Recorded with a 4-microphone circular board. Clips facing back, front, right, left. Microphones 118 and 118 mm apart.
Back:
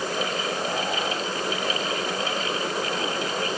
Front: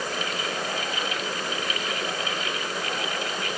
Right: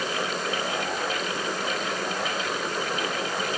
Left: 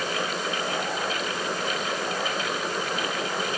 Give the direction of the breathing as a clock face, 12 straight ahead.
I don't hear breathing.